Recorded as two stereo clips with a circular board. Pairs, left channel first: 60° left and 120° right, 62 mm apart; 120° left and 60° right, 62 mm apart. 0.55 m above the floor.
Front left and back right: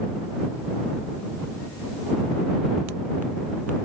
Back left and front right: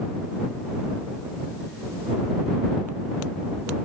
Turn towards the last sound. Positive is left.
No sound to turn to.